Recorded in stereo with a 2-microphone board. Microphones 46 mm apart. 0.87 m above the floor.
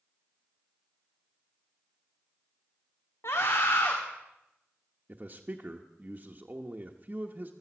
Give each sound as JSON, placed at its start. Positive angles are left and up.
{"t": 3.2, "sound": "a scream", "side_deg": 70, "distance_m": 1.8}
{"t": 5.1, "sound": "a man speaking", "side_deg": -35, "distance_m": 1.0}